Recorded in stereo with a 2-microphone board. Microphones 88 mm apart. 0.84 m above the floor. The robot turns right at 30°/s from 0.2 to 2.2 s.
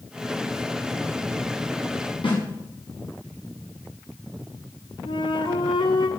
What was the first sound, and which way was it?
A snare drum, 80° left.